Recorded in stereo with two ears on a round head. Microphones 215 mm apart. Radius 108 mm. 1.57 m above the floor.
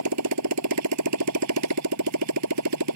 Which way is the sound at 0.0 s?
85° right.